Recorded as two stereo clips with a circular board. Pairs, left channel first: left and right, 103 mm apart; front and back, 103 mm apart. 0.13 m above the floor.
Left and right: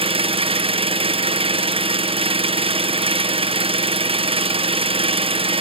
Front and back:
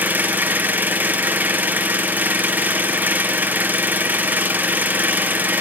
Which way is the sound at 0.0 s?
105° right.